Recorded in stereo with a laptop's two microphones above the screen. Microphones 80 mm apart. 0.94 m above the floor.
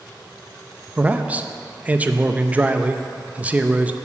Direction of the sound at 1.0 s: 20° right (ahead or behind).